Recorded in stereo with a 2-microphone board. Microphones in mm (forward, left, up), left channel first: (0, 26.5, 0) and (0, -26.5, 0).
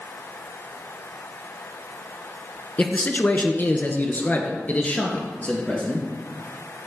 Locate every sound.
2.8 s a man speaking: 35° left (ahead or behind), 1.3 m; by 6.1 s 25° left (ahead or behind), 2.5 m